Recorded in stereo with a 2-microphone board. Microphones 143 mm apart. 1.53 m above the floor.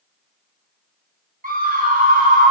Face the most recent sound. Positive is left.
turn(degrees=-70)  # may be behind; listen again after turning